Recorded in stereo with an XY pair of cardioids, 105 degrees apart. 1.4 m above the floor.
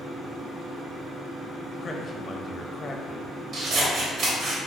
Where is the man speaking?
35° left, 0.6 m.